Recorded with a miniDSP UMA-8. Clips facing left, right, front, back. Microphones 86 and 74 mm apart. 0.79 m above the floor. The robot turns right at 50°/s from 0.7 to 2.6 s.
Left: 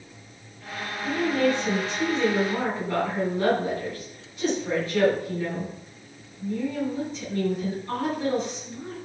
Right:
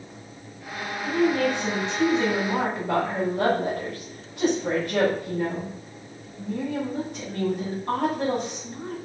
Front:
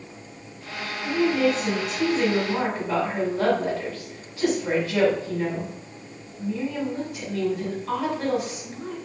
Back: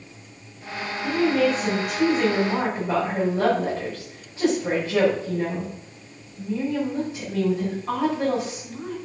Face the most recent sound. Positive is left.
turn(degrees=-120)